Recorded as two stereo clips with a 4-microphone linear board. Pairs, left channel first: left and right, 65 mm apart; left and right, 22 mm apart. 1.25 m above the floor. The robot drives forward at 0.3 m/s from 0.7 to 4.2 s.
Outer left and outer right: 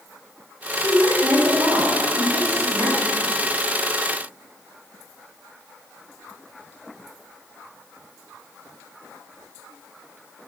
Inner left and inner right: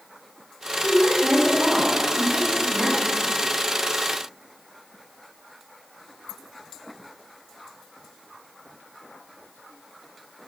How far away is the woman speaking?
About 2.5 m.